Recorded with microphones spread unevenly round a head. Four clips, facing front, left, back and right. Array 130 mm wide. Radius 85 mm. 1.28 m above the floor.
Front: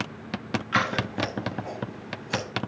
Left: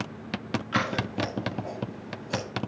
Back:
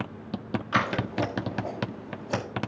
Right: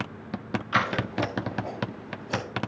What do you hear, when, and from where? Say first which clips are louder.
0.7 s scissors: right 3 dB, even; 175° left, 1.7 m